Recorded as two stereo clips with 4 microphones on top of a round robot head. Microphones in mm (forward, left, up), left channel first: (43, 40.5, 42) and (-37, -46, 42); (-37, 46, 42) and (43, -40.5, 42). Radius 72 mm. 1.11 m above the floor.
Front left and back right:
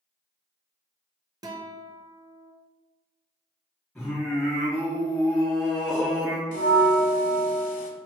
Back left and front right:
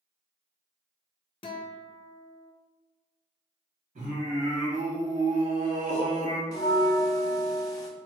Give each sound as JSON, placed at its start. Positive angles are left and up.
{"t": 1.4, "sound": "a guitar", "azimuth_deg": 175, "distance_m": 0.6}
{"t": 4.0, "sound": "singing", "azimuth_deg": -40, "distance_m": 2.0}
{"t": 6.5, "sound": "a bell", "azimuth_deg": 70, "distance_m": 0.7}